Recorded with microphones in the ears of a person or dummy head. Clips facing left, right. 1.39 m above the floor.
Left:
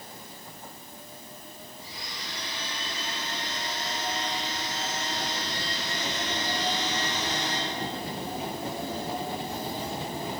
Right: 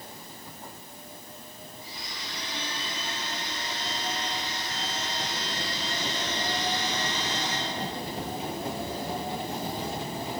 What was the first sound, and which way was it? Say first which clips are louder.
A blender: even; 50° left (ahead or behind).